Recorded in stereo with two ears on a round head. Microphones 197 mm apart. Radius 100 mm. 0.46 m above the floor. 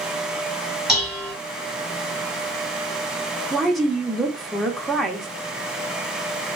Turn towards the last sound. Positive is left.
turn(degrees=0)  # may be behind; listen again after turning